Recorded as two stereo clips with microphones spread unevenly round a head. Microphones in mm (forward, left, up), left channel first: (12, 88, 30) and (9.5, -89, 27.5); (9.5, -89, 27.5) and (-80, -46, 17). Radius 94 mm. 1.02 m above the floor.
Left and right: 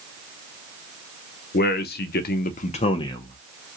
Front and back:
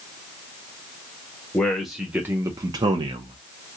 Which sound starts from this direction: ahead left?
A man speaking, at 1.5 s.